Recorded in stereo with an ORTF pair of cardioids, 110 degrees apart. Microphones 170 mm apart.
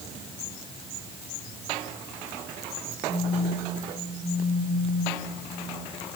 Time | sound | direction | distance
3.1 | a phone buzzing | 60° right | 2.5 m